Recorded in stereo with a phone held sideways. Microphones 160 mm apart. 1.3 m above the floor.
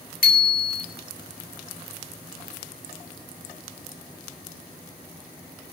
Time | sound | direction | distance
0.2 | a bicycle bell | 70° left (ahead or behind) | 3 m